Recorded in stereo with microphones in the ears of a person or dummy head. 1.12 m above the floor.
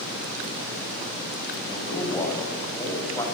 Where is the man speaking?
15° left (ahead or behind), 7.5 m.